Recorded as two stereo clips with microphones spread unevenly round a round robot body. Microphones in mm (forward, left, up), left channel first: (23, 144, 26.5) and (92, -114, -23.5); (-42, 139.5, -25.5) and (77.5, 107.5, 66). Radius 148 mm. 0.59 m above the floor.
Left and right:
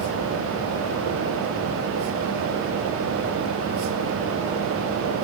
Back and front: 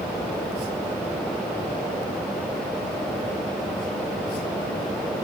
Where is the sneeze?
I don't hear a sneeze.